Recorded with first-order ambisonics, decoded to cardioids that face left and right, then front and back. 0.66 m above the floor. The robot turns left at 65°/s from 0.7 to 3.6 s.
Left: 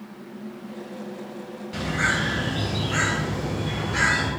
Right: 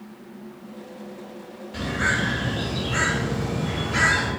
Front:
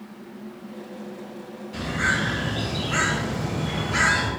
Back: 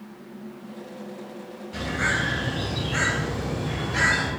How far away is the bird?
About 2.5 m.